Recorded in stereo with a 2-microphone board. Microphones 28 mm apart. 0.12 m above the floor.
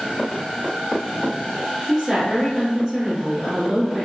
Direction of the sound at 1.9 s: 5° left (ahead or behind).